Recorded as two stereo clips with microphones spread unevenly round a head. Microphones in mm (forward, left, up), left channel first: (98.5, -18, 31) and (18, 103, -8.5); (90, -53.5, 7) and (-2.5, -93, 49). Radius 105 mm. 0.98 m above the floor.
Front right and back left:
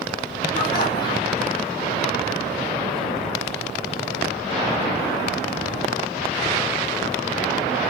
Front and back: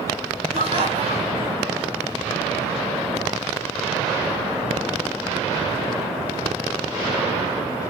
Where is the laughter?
140° right, 7 m.